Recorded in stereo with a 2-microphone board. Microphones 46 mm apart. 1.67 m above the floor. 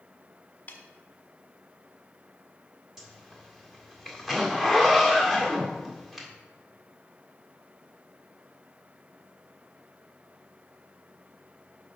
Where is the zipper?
10° right (ahead or behind), 1.7 m.